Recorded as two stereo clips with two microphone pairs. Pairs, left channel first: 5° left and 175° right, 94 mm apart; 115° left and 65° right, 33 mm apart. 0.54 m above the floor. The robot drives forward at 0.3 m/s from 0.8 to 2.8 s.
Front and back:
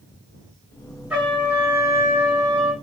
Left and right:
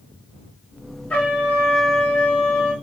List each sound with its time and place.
1.1 s a trumpet: 105° left, 1.2 m; by 2.7 s 125° left, 1.4 m